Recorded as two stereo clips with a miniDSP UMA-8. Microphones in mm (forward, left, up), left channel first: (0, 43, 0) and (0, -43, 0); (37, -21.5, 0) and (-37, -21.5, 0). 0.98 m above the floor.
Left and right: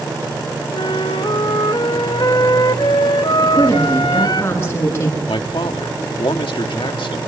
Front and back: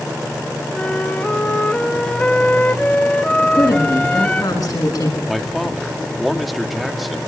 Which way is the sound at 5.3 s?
90° left.